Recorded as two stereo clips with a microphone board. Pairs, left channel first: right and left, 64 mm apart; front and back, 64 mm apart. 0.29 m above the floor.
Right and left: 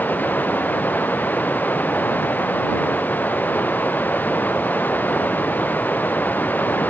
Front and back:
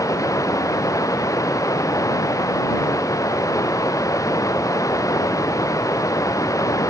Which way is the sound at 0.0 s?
30° right.